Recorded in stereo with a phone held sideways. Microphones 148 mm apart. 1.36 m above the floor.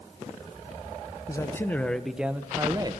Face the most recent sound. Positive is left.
turn(degrees=-30)  # may be behind; listen again after turning